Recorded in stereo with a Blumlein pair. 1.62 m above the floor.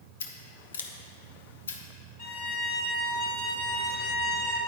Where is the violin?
40° left, 2.5 m.